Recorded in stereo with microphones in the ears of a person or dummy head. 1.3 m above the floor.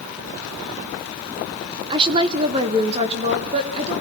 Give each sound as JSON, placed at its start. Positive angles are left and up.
{"t": 1.9, "sound": "a woman speaking", "side_deg": -20, "distance_m": 0.8}